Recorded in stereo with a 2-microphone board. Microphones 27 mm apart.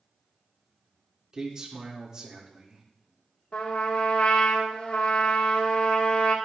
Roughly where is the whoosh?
No whoosh in this recording.